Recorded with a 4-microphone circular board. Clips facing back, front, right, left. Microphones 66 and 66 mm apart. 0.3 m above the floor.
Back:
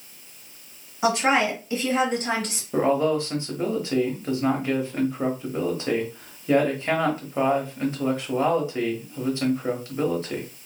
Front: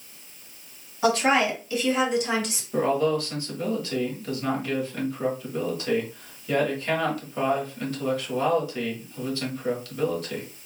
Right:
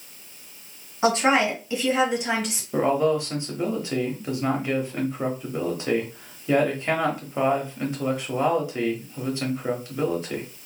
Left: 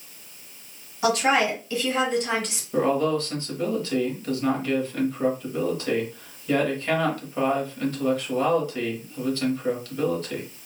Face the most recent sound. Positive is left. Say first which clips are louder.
# back 2 dB, right 1 dB
turn(degrees=-145)